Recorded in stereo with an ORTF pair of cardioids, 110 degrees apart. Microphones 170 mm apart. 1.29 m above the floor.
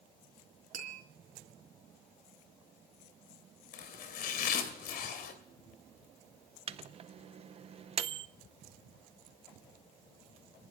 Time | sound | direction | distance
0.7 | tapping | 55° right | 3.5 m
3.7 | chopping | 70° left | 2.5 m
6.7 | a microwave | 35° right | 0.6 m